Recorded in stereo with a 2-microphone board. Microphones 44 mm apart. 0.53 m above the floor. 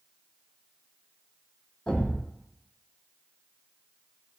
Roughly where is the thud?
Centre.